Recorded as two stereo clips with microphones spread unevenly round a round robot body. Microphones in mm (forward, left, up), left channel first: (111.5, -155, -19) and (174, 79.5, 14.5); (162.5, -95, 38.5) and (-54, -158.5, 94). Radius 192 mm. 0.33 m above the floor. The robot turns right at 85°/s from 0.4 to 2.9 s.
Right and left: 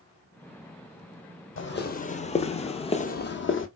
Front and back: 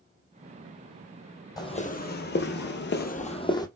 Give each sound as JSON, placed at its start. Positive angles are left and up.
{"t": 1.6, "sound": "footsteps", "azimuth_deg": -65, "distance_m": 0.8}